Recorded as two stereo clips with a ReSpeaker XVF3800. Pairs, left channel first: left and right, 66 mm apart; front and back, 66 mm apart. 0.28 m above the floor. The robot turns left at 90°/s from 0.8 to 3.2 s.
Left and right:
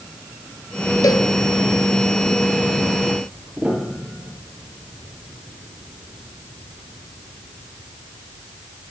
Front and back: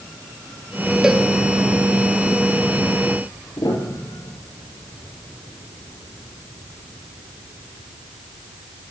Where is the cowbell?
105° left, 1.7 m; by 1.3 s 80° left, 1.7 m.